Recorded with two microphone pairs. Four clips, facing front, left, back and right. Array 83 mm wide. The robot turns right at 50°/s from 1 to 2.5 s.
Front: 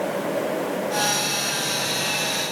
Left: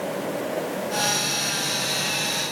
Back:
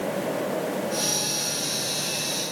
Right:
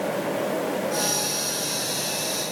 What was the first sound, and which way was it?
Only background noise.